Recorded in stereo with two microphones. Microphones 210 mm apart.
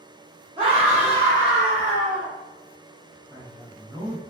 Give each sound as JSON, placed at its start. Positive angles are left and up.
{"t": 0.6, "sound": "a scream", "side_deg": -20, "distance_m": 1.3}
{"t": 3.3, "sound": "a man speaking", "side_deg": -20, "distance_m": 1.1}